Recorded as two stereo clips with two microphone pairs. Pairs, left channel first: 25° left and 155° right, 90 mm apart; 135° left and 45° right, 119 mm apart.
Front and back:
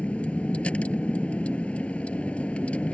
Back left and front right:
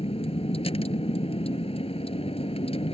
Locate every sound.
0.0 s a vehicle: 100° left